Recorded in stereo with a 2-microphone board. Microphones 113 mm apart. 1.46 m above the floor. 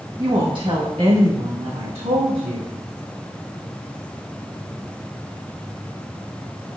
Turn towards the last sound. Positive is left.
turn(degrees=-85)